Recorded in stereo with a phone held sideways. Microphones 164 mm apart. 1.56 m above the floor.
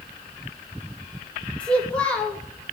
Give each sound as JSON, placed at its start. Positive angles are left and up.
{"t": 1.6, "sound": "a child speaking", "side_deg": 5, "distance_m": 1.9}